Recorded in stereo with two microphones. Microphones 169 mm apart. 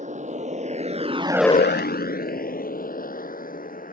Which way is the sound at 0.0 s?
45° right (ahead or behind).